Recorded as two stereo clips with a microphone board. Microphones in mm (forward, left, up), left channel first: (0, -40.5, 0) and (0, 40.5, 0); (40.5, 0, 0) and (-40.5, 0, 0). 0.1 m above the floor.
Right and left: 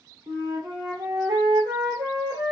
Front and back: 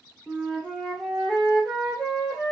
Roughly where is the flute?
Left.